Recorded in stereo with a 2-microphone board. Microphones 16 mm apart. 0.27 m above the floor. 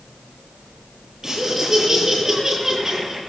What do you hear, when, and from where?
1.2 s laughter: 35° right (ahead or behind), 7 m